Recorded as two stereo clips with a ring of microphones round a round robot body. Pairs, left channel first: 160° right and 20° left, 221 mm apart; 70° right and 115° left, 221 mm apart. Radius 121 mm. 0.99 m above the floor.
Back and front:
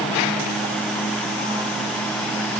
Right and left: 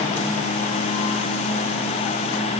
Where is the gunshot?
No gunshot in this recording.